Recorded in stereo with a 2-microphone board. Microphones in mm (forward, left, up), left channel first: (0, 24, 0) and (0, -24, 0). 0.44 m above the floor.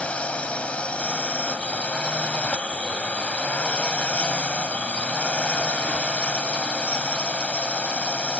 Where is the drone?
25° left (ahead or behind).